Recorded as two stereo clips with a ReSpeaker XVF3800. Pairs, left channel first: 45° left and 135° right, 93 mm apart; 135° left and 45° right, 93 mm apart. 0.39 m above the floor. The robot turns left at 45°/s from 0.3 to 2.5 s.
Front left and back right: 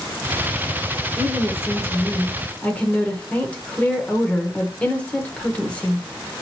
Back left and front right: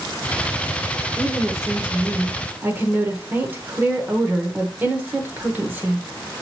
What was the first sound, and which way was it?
A woman speaking, 50° left.